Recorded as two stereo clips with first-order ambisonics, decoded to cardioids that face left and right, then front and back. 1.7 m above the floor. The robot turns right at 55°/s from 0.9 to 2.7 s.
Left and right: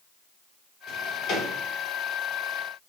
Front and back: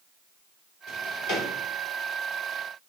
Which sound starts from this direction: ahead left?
A drawer, at 0.9 s.